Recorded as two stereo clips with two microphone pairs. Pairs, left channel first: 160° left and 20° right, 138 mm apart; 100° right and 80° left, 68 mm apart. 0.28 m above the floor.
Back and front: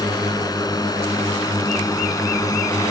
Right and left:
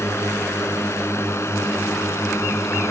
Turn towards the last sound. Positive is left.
turn(degrees=-140)